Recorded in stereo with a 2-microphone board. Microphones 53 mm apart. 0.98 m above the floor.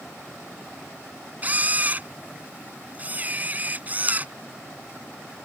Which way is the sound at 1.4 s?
30° right (ahead or behind).